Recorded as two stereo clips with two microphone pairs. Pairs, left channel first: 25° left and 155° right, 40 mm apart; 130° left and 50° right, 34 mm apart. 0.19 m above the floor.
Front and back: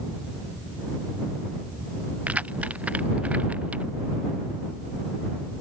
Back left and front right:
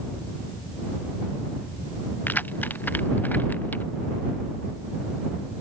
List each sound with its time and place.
2.3 s keys jangling: 150° left; by 3.9 s 155° left